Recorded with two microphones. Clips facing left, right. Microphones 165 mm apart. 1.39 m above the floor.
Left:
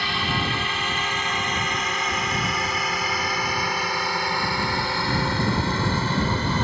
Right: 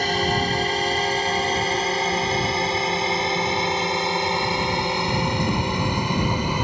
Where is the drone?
40° right (ahead or behind); by 6.7 s 10° right (ahead or behind).